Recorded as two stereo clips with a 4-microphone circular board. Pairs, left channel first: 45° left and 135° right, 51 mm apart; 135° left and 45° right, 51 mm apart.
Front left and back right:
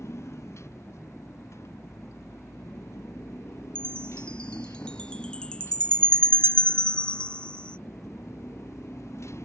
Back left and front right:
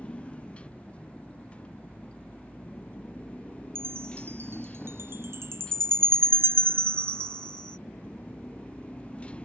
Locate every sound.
0.0 s a motorcycle: 70° left
3.8 s a chime: 20° right